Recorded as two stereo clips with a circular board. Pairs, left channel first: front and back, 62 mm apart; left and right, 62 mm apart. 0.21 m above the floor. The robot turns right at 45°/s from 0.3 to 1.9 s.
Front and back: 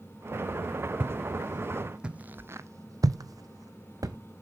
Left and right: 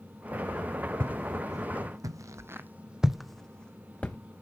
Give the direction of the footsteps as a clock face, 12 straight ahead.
4 o'clock.